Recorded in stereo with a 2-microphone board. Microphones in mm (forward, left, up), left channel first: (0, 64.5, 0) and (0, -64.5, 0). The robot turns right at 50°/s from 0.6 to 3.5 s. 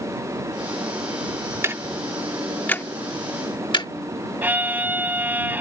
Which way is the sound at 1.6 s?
25° right (ahead or behind).